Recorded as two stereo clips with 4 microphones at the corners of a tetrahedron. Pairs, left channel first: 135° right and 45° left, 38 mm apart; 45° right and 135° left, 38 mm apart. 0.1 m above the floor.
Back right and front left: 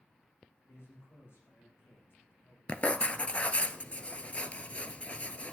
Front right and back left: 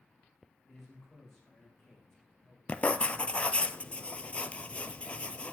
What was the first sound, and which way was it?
A man speaking, 130° right.